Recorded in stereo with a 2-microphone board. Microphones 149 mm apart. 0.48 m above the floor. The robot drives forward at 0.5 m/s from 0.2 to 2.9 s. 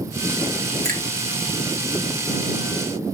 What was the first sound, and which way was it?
A finger snap, 70° right (ahead or behind).